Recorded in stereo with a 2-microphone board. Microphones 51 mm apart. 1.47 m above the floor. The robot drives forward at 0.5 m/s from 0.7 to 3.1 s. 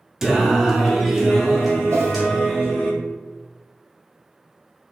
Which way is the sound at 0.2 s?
10° right (ahead or behind).